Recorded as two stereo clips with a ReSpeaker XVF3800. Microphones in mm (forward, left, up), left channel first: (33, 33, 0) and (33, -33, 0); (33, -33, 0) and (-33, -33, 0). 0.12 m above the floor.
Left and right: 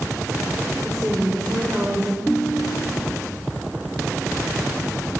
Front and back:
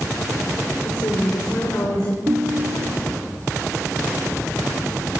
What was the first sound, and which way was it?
A woman speaking, 5° right.